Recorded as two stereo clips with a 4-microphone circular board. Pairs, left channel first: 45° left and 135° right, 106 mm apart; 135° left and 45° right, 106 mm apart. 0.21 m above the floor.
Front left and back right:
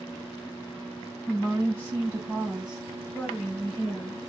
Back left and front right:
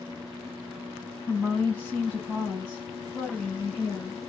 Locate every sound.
1.3 s a woman speaking: 175° right, 1.7 m; by 4.2 s 25° left, 1.6 m